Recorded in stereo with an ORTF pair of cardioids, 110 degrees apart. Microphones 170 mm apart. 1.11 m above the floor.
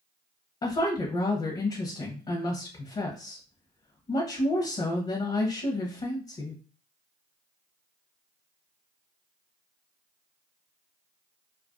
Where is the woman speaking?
30° left, 0.7 m.